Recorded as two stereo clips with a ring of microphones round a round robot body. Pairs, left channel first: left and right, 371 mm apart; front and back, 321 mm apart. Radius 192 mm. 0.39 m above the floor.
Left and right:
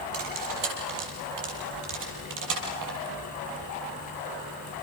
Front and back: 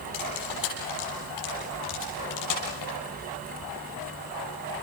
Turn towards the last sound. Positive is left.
turn(degrees=-45)